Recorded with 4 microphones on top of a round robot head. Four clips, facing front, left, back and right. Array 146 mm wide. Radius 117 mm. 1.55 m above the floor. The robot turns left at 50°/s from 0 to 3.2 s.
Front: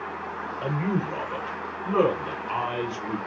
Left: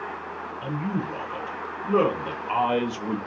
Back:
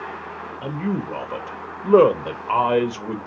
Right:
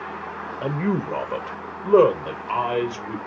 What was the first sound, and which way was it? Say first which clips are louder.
A man speaking: right 5 dB, back 1 dB; 95° right.